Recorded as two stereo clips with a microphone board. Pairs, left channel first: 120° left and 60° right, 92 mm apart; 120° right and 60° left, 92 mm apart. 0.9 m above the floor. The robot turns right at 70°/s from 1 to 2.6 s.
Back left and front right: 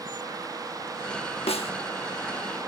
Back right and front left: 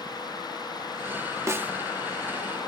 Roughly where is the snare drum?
Behind left.